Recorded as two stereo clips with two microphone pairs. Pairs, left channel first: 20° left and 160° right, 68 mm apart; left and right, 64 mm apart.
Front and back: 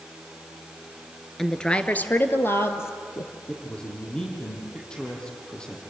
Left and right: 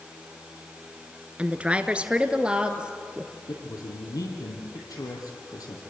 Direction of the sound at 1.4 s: 60° right.